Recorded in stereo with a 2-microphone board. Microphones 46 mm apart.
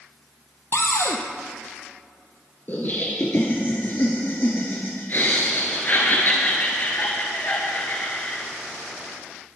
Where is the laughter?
45° left (ahead or behind), 1.6 m.